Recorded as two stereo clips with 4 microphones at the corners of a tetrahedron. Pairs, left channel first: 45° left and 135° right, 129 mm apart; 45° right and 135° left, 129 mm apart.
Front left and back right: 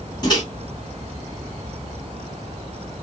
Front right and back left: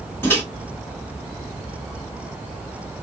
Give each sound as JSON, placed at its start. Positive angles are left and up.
{"t": 0.2, "sound": "a microwave", "azimuth_deg": 15, "distance_m": 1.3}